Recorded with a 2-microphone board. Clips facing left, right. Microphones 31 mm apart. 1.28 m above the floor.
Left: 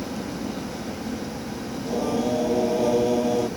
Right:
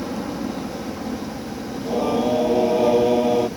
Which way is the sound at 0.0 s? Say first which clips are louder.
Right 4 dB; 40° right (ahead or behind).